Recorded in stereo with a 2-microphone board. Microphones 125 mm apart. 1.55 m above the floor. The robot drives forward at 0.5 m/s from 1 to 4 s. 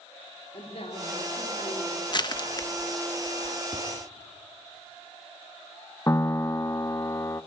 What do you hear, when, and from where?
0.5 s a man speaking: 55° left (ahead or behind), 3.5 m; by 2.0 s 65° left (ahead or behind), 3 m
2.1 s crushing: 35° left (ahead or behind), 0.9 m; by 3.6 s 25° left (ahead or behind), 1.4 m
3.7 s tapping: 30° left (ahead or behind), 4 m
6.1 s a piano: 25° left (ahead or behind), 0.6 m